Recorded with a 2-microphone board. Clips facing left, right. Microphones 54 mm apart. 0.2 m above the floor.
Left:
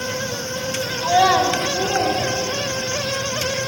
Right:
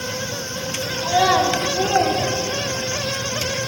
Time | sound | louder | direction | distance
1.0 | a child speaking | left 1 dB | 30° left (ahead or behind) | 1.2 m